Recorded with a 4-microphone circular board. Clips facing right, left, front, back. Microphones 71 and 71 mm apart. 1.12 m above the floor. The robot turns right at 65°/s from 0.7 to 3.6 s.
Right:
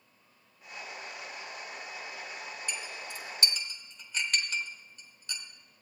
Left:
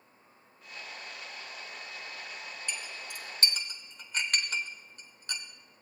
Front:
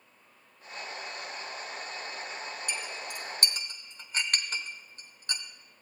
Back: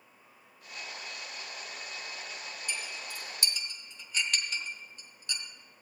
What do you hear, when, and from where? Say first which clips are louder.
2.7 s a clink: left 1 dB, front 2 dB; 15° right, 1.0 m; by 5.4 s 45° left, 1.0 m